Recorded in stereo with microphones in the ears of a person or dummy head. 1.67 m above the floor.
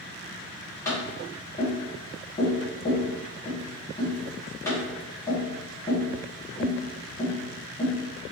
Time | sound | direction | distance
0.8 | tapping | 15° left (ahead or behind) | 2 m